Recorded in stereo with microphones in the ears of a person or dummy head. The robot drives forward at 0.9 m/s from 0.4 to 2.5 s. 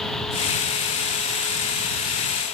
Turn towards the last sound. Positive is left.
No sound to turn to.